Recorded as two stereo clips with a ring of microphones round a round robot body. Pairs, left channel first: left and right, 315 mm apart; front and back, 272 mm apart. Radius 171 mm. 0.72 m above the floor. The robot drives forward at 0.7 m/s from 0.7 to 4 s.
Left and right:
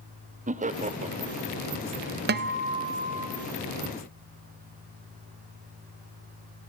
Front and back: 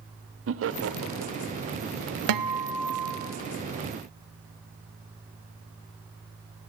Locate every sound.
0.5 s laughter: 150° right, 1.6 m; by 1.5 s 160° right, 2 m
2.3 s a guitar: 150° right, 1.0 m; by 3.3 s 160° right, 1.6 m